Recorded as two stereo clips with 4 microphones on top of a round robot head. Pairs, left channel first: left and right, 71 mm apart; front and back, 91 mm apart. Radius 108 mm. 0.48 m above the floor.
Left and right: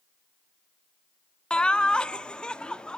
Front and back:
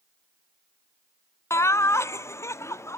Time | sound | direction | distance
1.5 | laughter | 25° left | 0.9 m